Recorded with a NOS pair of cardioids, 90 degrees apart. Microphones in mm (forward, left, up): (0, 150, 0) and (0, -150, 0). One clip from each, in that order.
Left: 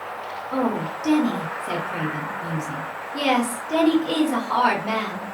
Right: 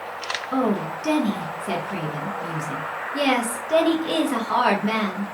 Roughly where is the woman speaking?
Ahead.